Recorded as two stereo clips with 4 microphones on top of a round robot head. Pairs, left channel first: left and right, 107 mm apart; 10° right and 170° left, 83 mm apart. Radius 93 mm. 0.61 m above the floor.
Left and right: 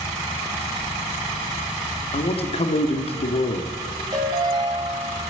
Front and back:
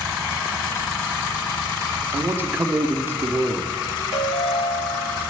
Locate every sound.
2.1 s a man speaking: 105° left, 1.4 m
4.1 s a ringtone: 30° right, 2.0 m